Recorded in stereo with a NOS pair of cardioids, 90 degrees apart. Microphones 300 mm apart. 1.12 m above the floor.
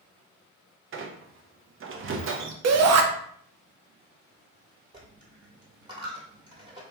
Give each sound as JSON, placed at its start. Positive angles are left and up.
{"t": 0.9, "sound": "a squeak", "azimuth_deg": -45, "distance_m": 0.6}
{"t": 2.6, "sound": "a shout", "azimuth_deg": -60, "distance_m": 0.7}
{"t": 4.9, "sound": "a dropped coin", "azimuth_deg": -15, "distance_m": 1.3}